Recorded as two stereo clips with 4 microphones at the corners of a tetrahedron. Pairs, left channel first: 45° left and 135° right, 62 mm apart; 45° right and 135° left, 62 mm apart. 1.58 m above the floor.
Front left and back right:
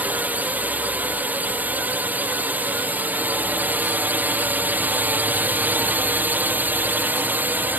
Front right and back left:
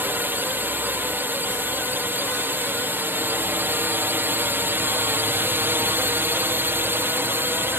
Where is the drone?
175° left.